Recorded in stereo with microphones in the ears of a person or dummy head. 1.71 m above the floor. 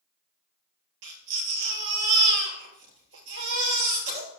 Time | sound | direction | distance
1.0 | a baby crying | 65° right (ahead or behind) | 4 m